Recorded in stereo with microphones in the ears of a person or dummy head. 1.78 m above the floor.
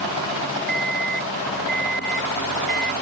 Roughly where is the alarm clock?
Right.